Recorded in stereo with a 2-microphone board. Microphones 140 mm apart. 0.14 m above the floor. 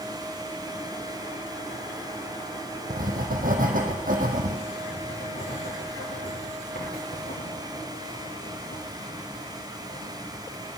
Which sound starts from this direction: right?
Writing, at 2.9 s.